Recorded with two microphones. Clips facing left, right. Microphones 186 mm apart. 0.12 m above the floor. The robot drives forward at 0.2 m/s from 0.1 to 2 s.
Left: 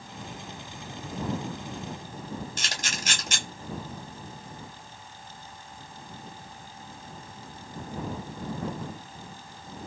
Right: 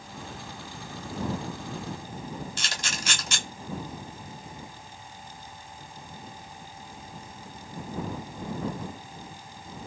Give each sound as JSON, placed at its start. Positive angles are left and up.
{"t": 2.6, "sound": "a camera shutter", "side_deg": 50, "distance_m": 1.0}